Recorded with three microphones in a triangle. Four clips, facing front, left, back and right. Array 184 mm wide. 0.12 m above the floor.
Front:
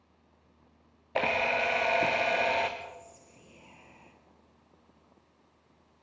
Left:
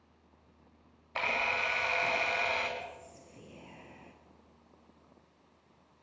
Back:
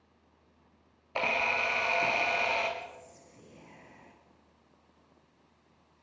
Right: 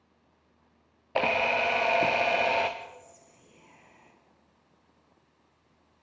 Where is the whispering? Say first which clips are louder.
Even, front 1 dB; 105° left, 2 m.